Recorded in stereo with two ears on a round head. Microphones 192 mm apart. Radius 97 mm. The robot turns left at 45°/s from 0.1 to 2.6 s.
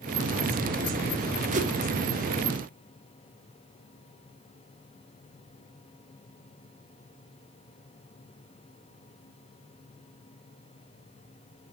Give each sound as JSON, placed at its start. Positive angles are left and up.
{"t": 1.5, "sound": "a whoosh", "side_deg": -35, "distance_m": 1.2}